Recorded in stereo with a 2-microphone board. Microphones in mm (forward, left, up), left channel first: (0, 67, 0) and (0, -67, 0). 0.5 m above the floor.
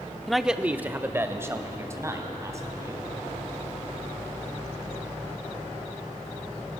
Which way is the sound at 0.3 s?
5° left (ahead or behind).